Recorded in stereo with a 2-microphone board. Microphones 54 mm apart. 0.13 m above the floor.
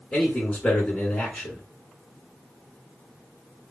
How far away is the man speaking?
About 1.5 m.